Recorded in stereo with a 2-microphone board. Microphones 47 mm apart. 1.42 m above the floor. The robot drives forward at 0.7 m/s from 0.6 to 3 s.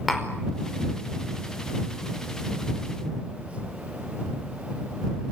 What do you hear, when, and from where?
0.1 s tapping: centre (ahead or behind), 4.5 m